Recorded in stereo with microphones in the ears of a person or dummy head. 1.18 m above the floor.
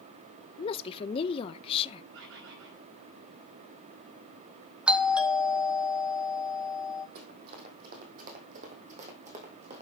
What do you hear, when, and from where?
0.6 s a woman speaking: 30° left (ahead or behind), 0.6 m
2.1 s a bird: 70° right (ahead or behind), 5 m
4.9 s a doorbell: 5° right (ahead or behind), 1.2 m
7.2 s running footsteps: 50° right (ahead or behind), 2.5 m; by 9.8 s 35° right (ahead or behind), 3.5 m